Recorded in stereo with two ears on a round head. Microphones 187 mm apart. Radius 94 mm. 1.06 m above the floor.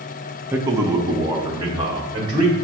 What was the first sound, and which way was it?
A man speaking, 10° right (ahead or behind).